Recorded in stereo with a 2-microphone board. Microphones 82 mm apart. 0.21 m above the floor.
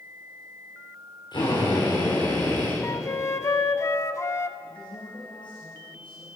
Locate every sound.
1.3 s a drill: 65° left (ahead or behind), 7.5 m
2.8 s a flute: 40° left (ahead or behind), 0.6 m
4.6 s a woman speaking: 75° left (ahead or behind), 5 m